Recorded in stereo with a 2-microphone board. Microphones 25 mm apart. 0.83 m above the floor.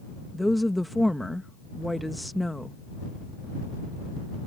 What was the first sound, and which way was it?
A woman speaking, centre (ahead or behind).